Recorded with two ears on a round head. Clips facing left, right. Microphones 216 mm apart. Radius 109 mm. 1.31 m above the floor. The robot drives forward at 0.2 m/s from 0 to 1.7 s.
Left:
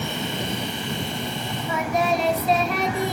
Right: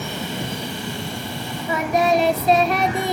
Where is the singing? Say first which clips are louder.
Right 5 dB; 55° right (ahead or behind), 1.4 m.